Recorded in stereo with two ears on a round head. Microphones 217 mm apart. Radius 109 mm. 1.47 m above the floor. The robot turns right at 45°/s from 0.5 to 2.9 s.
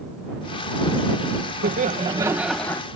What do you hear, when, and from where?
1.6 s laughter: 40° right; by 2.8 s 15° left